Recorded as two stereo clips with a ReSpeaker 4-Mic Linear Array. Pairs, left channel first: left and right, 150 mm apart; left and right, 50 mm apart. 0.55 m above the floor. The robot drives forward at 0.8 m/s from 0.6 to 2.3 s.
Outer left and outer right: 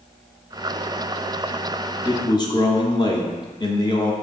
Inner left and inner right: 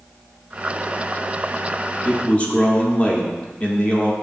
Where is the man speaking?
30° left (ahead or behind), 0.7 m.